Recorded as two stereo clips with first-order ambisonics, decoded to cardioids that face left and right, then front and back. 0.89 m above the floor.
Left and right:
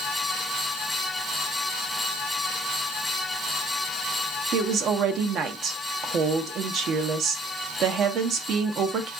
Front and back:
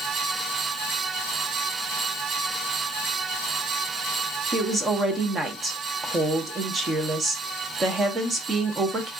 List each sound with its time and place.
4.5 s a woman speaking: 120° right, 0.7 m